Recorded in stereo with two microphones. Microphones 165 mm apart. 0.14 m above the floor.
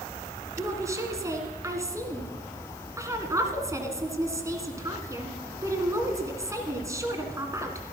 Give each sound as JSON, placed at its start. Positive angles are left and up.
{"t": 0.6, "sound": "a woman speaking", "side_deg": -20, "distance_m": 1.6}